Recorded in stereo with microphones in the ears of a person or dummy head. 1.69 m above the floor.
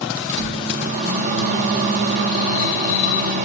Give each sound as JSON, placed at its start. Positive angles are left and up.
{"t": 0.3, "sound": "a microwave", "side_deg": -50, "distance_m": 1.4}